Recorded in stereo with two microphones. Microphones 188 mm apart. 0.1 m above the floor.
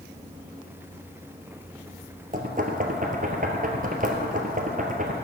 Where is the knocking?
45° right (ahead or behind), 1.9 m.